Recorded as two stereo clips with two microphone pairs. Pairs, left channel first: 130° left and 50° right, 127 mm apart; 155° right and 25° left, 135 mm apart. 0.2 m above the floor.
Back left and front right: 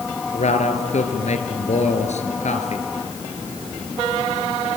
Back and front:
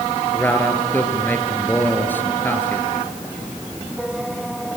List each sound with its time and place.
0.3 s a man speaking: 130° left, 3 m